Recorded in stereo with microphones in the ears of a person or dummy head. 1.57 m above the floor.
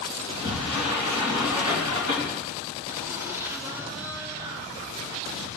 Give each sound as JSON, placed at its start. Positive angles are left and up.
{"t": 0.2, "sound": "a sliding door", "side_deg": -25, "distance_m": 3.0}
{"t": 2.9, "sound": "laughter", "side_deg": -20, "distance_m": 3.0}